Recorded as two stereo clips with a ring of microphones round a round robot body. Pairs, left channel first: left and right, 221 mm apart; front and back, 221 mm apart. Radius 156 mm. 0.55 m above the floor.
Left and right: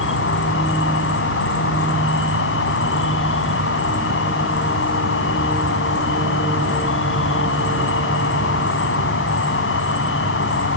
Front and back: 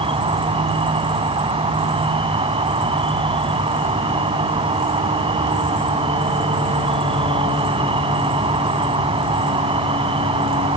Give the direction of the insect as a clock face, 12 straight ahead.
8 o'clock.